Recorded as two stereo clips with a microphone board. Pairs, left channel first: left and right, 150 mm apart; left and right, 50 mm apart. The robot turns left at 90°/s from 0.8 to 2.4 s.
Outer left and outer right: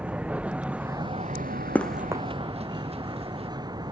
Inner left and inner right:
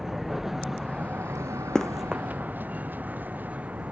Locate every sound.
0.0 s a vehicle: 10° right; by 3.9 s 150° right
1.8 s running footsteps: 15° left (ahead or behind); by 3.5 s 40° right (ahead or behind)